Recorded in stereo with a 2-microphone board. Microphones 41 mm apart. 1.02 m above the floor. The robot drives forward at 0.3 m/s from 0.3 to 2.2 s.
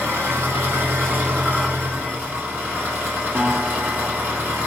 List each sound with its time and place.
0.0 s an engine running: 80° right, 1.2 m; by 4.7 s 55° right (ahead or behind), 1.4 m
3.4 s a guitar: 85° right, 0.9 m